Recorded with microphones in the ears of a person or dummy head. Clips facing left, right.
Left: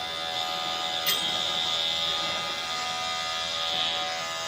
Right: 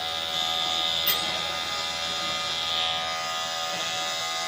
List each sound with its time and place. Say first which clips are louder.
1.1 s a bell: right 2 dB; 35° left (ahead or behind), 6.5 m